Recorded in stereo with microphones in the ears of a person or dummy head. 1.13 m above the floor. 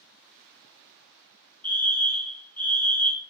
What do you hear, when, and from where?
1.6 s a fire alarm: 10° left (ahead or behind), 2 m